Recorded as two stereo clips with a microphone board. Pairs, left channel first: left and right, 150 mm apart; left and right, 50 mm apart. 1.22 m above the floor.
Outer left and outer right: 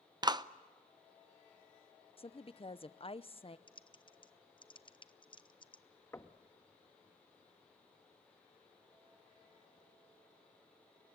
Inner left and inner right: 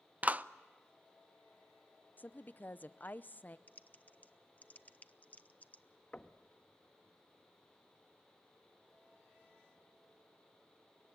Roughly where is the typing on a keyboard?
Left.